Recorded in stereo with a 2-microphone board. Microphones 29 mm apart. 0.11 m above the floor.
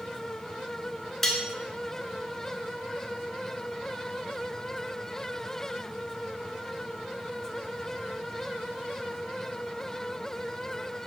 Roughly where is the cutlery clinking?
Centre.